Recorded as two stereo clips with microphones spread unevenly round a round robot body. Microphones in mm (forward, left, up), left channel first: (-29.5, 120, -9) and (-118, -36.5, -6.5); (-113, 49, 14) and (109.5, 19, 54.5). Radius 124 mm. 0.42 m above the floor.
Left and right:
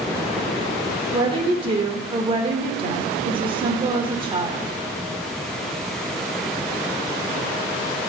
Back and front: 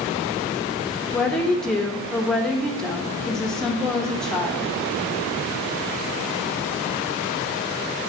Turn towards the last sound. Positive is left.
turn(degrees=-125)